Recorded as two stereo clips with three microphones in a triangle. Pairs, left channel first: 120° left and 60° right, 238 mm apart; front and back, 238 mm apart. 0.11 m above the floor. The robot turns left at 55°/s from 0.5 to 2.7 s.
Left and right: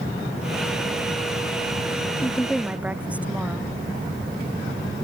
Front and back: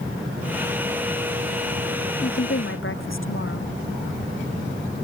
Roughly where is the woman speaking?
Ahead left.